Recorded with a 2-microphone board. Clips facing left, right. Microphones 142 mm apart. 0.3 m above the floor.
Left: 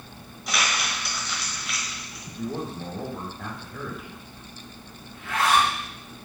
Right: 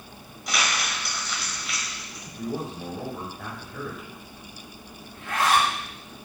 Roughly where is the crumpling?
Centre.